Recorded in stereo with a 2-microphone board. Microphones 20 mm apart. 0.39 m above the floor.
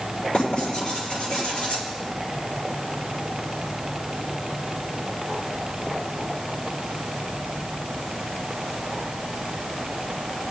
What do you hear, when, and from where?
0.3 s writing: 45° left (ahead or behind), 7 m